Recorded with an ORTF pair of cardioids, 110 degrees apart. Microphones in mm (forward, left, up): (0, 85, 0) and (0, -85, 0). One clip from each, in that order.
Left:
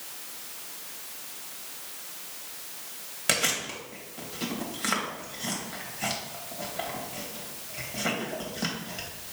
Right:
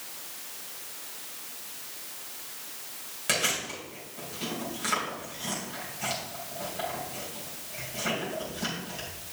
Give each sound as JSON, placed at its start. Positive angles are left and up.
{"t": 3.3, "sound": "chewing", "azimuth_deg": 25, "distance_m": 2.5}